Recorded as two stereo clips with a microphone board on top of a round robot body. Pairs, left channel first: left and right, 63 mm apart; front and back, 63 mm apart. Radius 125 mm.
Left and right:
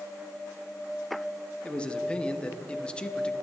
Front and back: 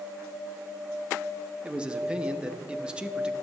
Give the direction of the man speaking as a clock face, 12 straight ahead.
7 o'clock.